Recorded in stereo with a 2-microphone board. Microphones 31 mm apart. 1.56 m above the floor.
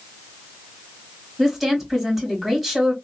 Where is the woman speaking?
5° left (ahead or behind), 1.8 m.